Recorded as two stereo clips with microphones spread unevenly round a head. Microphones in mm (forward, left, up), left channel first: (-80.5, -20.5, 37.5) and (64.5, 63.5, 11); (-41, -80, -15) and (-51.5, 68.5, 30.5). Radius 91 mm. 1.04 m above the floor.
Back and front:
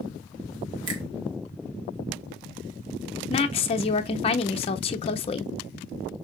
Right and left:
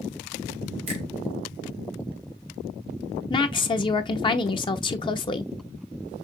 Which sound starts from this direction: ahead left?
A finger snap, at 0.9 s.